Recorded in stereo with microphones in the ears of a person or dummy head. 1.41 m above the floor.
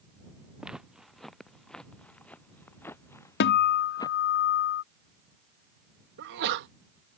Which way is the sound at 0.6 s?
Centre (ahead or behind).